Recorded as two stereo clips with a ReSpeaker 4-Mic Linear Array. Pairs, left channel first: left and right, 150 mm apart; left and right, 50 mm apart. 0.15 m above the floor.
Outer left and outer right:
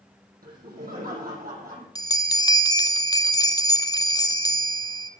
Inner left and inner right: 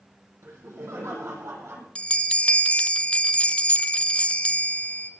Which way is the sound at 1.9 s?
25° left (ahead or behind).